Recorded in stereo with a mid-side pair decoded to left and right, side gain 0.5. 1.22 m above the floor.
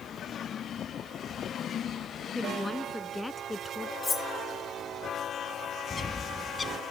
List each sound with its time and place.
2.4 s a woman speaking: 10° left; by 3.9 s 15° left
4.0 s cutlery clinking: 25° left
5.9 s a bird: 30° left